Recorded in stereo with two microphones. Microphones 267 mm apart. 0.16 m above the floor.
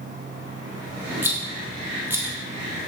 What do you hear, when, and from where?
1.2 s a rattle: 10° right (ahead or behind), 1.7 m